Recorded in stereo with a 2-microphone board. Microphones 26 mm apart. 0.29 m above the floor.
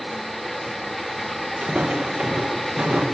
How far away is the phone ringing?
No phone ringing in this recording.